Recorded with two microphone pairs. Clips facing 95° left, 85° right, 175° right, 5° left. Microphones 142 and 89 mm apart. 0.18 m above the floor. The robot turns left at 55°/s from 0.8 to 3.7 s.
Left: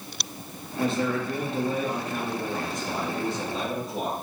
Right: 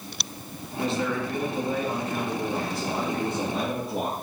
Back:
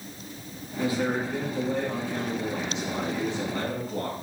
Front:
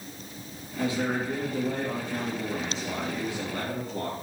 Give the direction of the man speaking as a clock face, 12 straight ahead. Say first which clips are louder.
Left 1 dB, back 1 dB; 10 o'clock.